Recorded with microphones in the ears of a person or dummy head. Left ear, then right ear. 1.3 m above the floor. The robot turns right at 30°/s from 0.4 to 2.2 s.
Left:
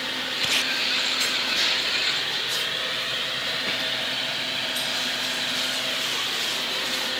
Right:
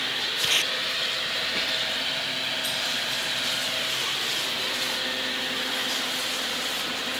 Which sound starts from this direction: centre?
Tape being pulled, at 0.4 s.